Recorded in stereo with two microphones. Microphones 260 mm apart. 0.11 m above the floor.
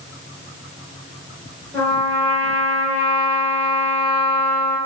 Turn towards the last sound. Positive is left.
turn(degrees=10)  # may be behind; listen again after turning